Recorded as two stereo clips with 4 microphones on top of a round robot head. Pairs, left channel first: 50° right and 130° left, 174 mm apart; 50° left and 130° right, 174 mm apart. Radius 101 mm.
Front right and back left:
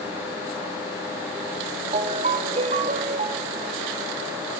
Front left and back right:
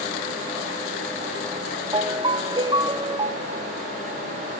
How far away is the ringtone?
About 1.0 m.